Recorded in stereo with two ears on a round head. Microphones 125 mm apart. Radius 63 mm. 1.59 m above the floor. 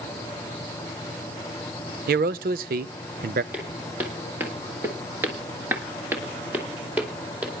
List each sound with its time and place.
2.1 s a man speaking: 70° right (ahead or behind), 0.6 m
3.5 s footsteps: 10° right (ahead or behind), 3 m